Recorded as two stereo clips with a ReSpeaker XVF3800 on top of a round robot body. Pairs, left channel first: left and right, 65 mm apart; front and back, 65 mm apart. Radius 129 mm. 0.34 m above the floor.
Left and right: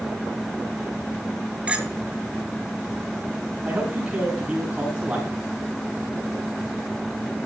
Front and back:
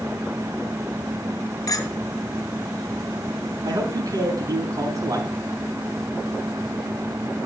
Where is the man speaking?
165° right, 4 m.